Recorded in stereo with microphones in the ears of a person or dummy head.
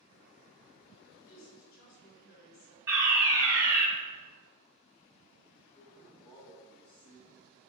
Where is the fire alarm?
15° right (ahead or behind), 1.1 m.